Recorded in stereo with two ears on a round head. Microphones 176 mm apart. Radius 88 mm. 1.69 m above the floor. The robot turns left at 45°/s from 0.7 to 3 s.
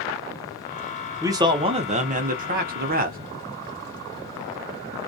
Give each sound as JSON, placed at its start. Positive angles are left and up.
{"t": 1.2, "sound": "a man speaking", "azimuth_deg": -20, "distance_m": 0.8}